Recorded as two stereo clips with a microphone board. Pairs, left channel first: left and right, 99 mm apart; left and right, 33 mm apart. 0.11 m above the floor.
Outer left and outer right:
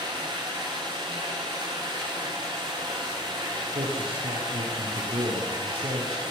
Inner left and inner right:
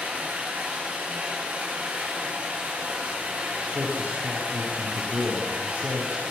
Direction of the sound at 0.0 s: 55° right (ahead or behind).